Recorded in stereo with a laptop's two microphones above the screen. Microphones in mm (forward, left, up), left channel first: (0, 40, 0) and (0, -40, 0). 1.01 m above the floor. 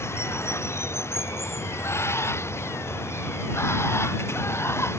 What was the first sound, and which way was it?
Running water, 30° left (ahead or behind).